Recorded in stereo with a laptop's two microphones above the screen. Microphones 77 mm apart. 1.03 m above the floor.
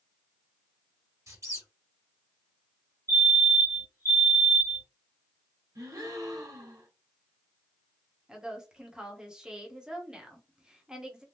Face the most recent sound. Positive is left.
turn(degrees=-10)  # may be behind; listen again after turning